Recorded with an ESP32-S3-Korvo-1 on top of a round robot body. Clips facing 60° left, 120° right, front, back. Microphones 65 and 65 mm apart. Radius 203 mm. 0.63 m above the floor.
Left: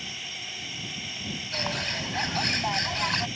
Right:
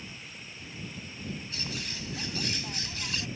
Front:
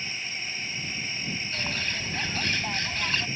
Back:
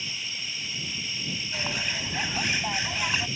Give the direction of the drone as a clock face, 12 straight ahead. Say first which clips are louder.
Left 6 dB, front 2 dB; 10 o'clock.